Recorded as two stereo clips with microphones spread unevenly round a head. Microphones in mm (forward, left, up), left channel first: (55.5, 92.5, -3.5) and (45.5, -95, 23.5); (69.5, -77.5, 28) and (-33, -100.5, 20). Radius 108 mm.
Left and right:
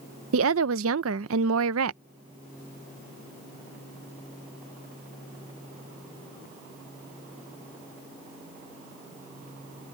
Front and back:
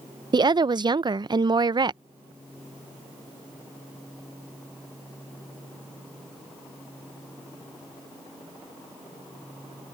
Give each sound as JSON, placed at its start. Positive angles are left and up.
{"t": 0.3, "sound": "a woman speaking", "azimuth_deg": -120}